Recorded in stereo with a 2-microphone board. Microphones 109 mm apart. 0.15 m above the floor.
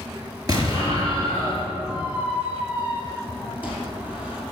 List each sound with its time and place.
0.5 s an explosion: 35° right (ahead or behind), 3 m
1.9 s a squeak: 15° right (ahead or behind), 3 m